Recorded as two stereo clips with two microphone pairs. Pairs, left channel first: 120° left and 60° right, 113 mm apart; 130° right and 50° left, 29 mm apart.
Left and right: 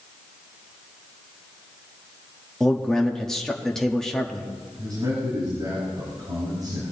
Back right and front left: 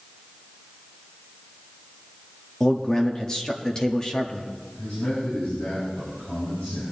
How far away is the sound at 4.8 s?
About 4.5 m.